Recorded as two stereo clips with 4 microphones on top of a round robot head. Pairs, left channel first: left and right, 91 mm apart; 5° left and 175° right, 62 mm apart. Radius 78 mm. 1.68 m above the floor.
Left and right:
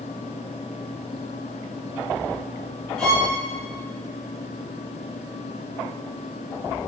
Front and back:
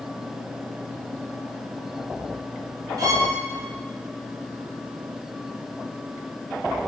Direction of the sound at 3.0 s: 175° left.